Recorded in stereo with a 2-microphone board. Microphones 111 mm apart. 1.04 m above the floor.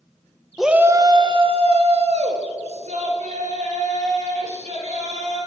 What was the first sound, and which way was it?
A shout, centre (ahead or behind).